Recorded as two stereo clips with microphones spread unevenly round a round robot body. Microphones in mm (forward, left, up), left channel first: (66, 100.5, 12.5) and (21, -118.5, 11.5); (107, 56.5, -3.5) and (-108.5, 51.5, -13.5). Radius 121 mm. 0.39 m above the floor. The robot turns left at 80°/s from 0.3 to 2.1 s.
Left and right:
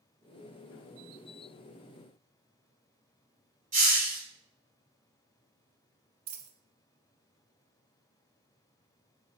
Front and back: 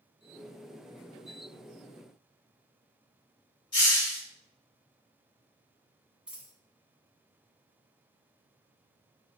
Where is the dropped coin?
90° right, 0.5 m.